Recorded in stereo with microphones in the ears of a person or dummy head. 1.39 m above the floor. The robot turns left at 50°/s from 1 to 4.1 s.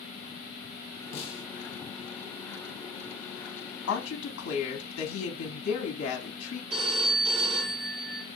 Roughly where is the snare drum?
Left.